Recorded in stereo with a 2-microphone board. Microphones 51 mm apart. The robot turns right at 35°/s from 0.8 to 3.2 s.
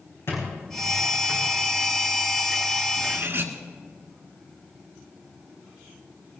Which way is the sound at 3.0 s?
60° right (ahead or behind).